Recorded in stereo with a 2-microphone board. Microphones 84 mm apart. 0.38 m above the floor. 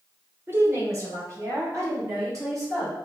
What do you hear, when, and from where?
0.5 s a woman speaking: 30° right (ahead or behind), 0.9 m; by 3.0 s 40° right (ahead or behind), 3.5 m